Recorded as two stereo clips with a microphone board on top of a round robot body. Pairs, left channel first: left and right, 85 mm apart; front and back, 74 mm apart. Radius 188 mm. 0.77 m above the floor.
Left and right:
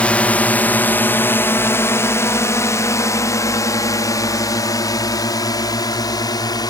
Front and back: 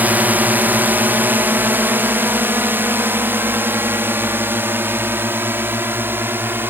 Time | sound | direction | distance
0.0 | a drone | 145° left | ?